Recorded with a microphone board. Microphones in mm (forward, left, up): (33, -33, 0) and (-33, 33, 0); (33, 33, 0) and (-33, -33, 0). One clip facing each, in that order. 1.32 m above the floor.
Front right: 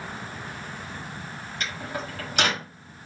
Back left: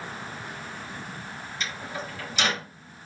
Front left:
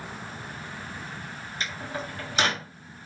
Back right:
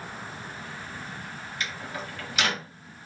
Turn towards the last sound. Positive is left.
turn(degrees=-10)